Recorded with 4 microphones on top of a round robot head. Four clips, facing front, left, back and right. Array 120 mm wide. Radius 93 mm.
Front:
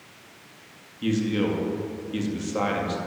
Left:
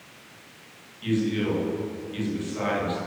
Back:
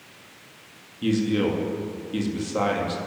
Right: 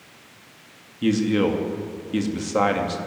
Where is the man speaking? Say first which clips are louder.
Right 5 dB, back 2 dB; 95° right, 3.5 m.